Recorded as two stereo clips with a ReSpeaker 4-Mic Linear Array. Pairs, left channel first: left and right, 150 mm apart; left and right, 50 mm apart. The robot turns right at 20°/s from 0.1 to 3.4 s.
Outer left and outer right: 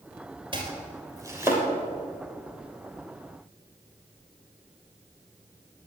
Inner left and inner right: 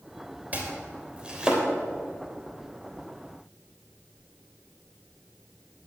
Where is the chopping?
35° right (ahead or behind), 3 m; by 1.6 s 15° right (ahead or behind), 3 m.